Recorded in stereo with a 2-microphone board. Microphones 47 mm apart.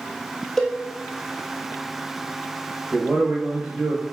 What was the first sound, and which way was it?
A cowbell, 5° left (ahead or behind).